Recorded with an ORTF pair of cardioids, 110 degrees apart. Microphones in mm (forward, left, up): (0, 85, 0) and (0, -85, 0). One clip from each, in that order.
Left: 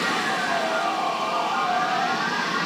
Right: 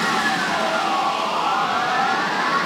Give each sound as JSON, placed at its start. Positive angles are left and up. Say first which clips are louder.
{"t": 0.0, "sound": "a machine running", "louder": "right 4 dB", "azimuth_deg": -30, "distance_m": 0.8}